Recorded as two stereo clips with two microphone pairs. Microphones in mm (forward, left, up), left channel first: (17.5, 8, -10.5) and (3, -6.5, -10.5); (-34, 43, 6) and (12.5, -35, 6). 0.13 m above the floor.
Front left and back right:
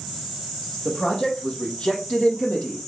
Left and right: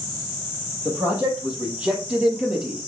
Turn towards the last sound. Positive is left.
turn(degrees=25)